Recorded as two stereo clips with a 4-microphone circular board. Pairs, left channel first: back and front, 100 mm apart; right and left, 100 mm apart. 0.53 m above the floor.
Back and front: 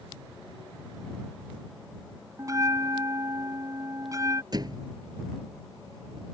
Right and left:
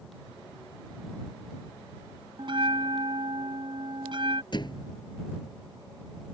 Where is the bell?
55° left.